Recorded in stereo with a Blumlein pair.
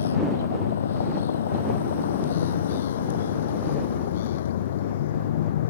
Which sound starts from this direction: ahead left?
A vehicle, at 0.0 s.